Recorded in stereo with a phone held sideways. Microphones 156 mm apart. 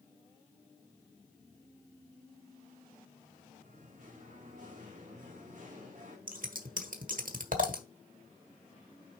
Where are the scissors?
65° right (ahead or behind), 1.2 m.